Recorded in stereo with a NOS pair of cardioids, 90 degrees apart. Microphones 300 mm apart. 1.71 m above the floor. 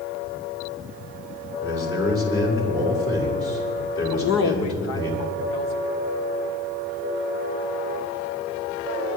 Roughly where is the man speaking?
Ahead left.